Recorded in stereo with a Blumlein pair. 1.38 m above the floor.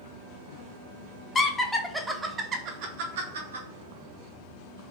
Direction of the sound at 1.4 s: 15° left.